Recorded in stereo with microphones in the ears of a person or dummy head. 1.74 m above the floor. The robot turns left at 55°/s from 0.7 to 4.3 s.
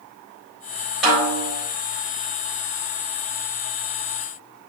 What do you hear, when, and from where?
1.0 s a snare drum: 5° right (ahead or behind), 3.5 m; by 1.5 s 20° left (ahead or behind), 3.5 m